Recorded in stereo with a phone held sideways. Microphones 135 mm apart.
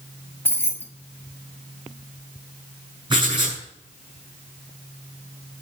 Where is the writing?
35° right (ahead or behind), 6 m.